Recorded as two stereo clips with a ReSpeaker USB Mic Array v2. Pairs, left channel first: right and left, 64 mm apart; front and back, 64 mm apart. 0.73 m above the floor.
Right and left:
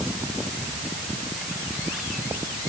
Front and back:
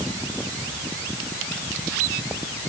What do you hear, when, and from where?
Only background noise.